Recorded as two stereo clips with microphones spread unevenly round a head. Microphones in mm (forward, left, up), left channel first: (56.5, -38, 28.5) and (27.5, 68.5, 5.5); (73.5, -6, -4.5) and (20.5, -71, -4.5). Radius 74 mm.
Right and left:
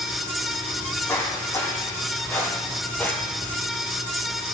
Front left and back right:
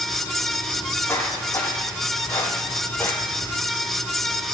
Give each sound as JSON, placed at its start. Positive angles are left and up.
{"t": 0.8, "sound": "footsteps", "azimuth_deg": -10, "distance_m": 4.0}